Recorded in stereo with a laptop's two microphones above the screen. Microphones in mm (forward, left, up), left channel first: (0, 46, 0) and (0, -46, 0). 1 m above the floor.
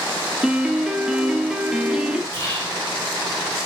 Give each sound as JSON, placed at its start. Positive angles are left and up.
{"t": 0.4, "sound": "a piano", "side_deg": -10, "distance_m": 1.1}
{"t": 2.3, "sound": "whispering", "side_deg": 25, "distance_m": 5.0}